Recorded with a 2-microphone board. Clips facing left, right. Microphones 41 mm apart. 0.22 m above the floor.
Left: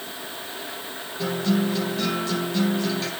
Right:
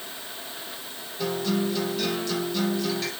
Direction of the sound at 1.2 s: 5° right (ahead or behind).